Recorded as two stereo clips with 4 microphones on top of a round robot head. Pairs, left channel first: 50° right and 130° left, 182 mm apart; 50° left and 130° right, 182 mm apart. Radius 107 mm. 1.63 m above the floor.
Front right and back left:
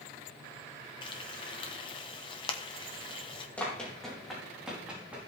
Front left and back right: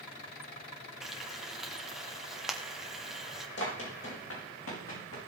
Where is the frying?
45° right, 0.6 m.